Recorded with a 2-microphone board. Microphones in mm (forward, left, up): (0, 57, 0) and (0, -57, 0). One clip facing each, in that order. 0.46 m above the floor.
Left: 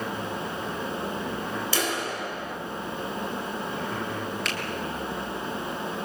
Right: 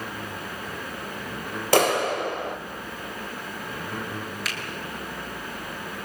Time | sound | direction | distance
1.7 | a clap | 60° right (ahead or behind) | 2.0 m
4.5 | a finger snap | 5° right (ahead or behind) | 4.5 m